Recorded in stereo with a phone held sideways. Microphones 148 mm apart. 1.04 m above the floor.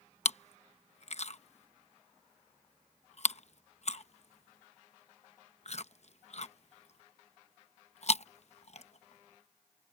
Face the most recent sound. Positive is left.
turn(degrees=55)  # may be behind; listen again after turning